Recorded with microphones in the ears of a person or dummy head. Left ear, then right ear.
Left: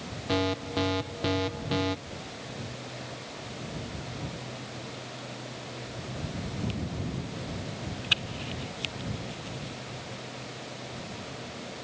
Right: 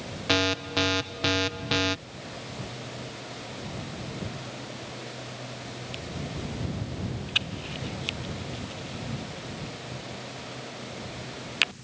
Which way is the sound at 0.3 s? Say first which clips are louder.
Right 4 dB; 50° right (ahead or behind).